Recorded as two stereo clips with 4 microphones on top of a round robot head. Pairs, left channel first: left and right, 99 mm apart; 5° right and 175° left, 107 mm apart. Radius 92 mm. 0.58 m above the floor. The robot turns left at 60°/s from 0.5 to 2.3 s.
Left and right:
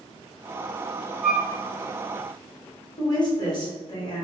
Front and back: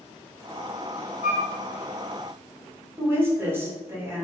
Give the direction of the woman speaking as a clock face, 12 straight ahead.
8 o'clock.